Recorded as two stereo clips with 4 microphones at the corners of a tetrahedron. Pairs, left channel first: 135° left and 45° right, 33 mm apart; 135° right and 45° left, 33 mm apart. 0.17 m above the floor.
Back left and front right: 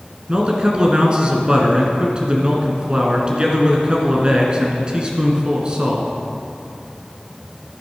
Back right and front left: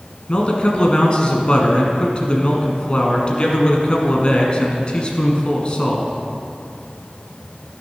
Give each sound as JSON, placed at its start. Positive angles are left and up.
{"t": 0.3, "sound": "a man speaking", "azimuth_deg": -90, "distance_m": 1.5}